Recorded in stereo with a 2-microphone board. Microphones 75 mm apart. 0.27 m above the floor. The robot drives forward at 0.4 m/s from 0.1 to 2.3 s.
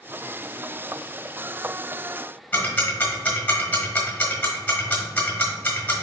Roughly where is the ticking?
Centre.